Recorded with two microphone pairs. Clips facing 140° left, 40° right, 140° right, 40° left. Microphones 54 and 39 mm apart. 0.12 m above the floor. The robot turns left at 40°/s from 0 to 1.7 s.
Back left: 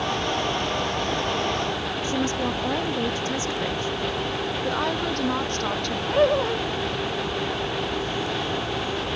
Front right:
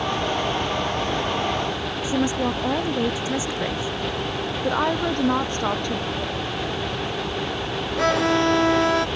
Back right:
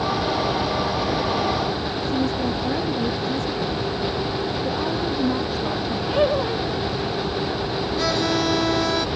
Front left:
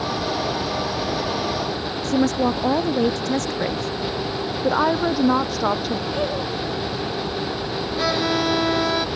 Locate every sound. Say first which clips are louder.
2.0 s a woman speaking: front right 4 dB, front left 5 dB; 40° left
4.6 s a woman speaking: front right 5 dB, front left 5 dB; 35° left
6.1 s laughter: back left 8 dB, back right 4 dB; 165° left
8.0 s a violin: front right 8 dB, front left 1 dB; 40° right